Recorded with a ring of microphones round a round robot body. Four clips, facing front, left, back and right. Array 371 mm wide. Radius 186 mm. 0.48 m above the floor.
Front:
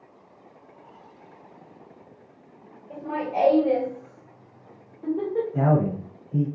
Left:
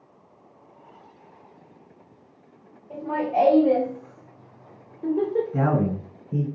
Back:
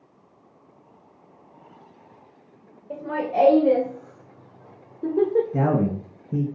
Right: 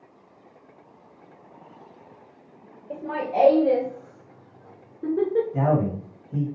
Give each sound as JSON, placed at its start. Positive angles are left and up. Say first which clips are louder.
{"t": 2.9, "sound": "laughter", "louder": "left 3 dB, back 3 dB", "azimuth_deg": -135, "distance_m": 3.0}
{"t": 5.5, "sound": "a man speaking", "louder": "even, even", "azimuth_deg": 155, "distance_m": 2.0}